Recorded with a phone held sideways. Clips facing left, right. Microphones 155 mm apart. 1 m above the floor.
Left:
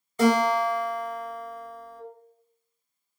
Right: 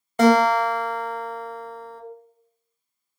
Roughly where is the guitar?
Right.